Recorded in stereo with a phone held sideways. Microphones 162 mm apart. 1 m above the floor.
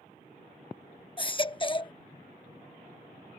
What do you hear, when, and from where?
1.2 s a baby crying: 30° left (ahead or behind)